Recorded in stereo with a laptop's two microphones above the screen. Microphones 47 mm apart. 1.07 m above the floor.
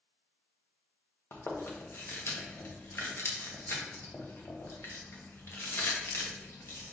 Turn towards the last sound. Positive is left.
turn(degrees=60)  # may be behind; listen again after turning